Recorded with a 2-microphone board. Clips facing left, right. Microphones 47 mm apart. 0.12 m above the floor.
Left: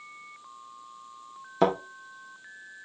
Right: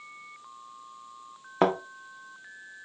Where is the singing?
I don't hear singing.